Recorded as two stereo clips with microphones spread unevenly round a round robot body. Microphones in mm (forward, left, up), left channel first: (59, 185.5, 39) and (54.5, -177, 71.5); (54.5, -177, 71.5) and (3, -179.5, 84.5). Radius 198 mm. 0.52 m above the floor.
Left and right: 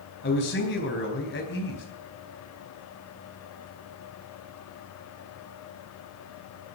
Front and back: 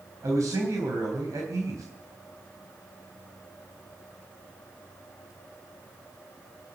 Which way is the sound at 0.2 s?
150° left.